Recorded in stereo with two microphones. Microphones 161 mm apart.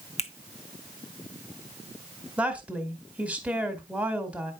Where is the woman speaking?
10° right (ahead or behind), 1.7 m.